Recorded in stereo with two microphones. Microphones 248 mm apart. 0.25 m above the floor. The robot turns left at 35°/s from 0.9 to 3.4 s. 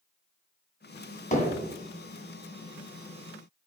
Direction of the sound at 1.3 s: 30° left (ahead or behind).